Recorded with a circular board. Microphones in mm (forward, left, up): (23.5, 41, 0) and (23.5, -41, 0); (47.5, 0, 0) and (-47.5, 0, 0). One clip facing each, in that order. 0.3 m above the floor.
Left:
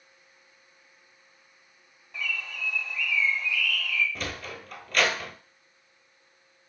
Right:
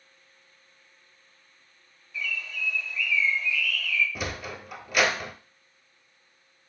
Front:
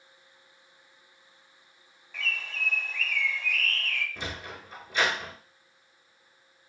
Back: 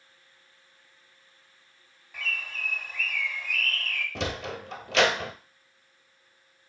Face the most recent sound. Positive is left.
turn(degrees=-170)